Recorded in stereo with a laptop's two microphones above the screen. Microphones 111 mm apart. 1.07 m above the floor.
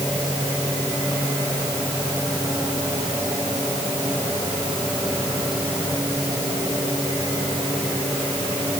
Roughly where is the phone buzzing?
I don't hear a phone buzzing.